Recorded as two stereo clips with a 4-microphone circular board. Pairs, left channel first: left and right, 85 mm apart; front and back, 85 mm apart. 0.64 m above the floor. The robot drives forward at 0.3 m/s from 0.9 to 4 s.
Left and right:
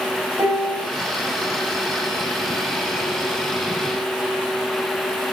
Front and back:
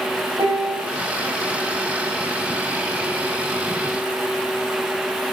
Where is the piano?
145° right, 0.8 m.